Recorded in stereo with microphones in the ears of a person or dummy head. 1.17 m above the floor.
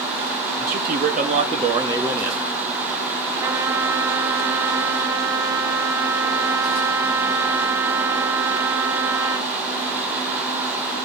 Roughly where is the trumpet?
Centre.